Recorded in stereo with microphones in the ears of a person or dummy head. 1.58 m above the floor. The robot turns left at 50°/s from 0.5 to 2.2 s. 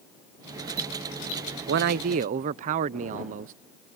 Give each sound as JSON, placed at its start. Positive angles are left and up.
{"t": 1.7, "sound": "a man speaking", "side_deg": -50}